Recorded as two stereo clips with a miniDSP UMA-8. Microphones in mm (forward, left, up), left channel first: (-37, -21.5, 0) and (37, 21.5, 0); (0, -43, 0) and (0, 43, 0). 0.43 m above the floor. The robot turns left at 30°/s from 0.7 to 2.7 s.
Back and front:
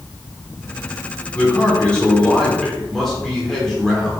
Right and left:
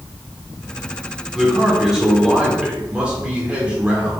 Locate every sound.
1.3 s a man speaking: 175° left, 1.1 m; by 4.2 s 135° left, 1.1 m